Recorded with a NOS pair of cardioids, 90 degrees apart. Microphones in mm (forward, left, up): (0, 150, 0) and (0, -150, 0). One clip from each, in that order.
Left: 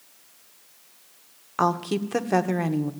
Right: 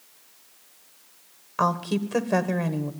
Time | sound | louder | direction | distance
1.6 | a woman speaking | left 1 dB | 10° left | 1.0 m